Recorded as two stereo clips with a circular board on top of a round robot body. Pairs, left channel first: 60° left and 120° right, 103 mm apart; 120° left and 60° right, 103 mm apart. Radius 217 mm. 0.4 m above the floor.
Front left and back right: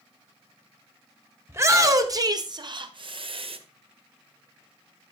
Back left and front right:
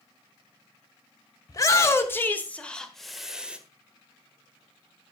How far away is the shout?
About 2.5 m.